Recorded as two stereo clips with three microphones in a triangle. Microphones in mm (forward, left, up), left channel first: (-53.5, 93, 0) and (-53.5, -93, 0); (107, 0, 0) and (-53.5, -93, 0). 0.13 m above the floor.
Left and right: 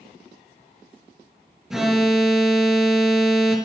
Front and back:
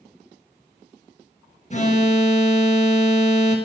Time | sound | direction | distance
1.7 | an alarm | 5° right | 2.5 m